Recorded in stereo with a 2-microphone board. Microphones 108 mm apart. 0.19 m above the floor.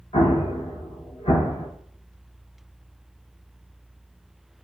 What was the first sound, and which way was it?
An explosion, 80° left.